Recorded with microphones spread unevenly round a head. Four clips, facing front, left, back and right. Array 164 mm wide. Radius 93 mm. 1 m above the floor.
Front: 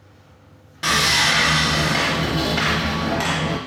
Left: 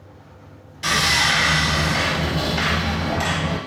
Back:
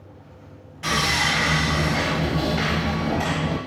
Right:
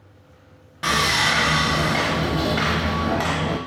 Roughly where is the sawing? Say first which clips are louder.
Even, front 3 dB; ahead right.